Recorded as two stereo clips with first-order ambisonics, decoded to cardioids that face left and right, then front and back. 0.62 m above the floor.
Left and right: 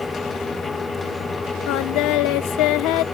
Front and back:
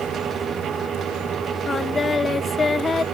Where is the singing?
75° left.